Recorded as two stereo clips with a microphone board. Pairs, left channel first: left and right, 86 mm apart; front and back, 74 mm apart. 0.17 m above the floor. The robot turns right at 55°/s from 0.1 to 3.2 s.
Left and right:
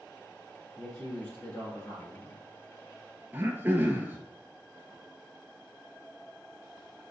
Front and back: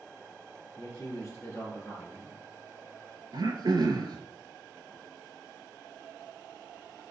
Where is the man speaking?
Straight ahead, 2.0 m; by 2.4 s 90° left, 2.0 m.